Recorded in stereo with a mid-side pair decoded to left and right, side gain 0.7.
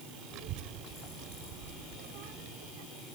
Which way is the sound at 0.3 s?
60° right.